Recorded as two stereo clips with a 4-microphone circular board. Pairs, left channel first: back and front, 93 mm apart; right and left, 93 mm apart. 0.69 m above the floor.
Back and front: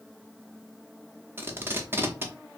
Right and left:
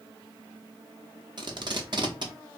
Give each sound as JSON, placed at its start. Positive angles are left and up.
{"t": 1.4, "sound": "tape being pulled", "azimuth_deg": 65, "distance_m": 0.6}